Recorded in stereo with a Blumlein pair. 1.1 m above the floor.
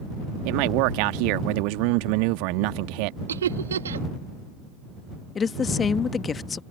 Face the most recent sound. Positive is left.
turn(degrees=20)